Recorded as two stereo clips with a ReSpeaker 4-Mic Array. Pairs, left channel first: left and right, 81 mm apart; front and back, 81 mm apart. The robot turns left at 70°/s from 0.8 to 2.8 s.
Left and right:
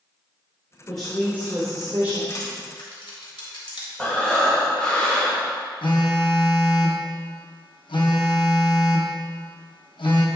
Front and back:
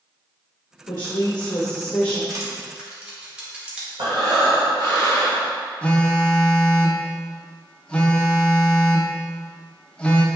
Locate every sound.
0.9 s a woman speaking: 10° left, 1.3 m; by 2.2 s 80° right, 1.3 m
2.3 s crushing: 140° left, 1.8 m; by 3.9 s 105° left, 1.8 m
4.0 s breathing: 170° left, 1.6 m
5.8 s a phone buzzing: 75° left, 0.8 m